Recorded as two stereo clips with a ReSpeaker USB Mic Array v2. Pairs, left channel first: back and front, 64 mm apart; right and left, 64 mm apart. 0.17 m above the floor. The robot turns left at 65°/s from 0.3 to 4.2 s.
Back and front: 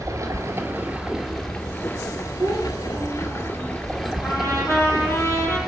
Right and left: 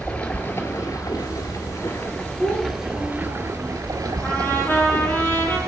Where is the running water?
20° right, 1.8 m; by 5.7 s 85° left, 1.8 m.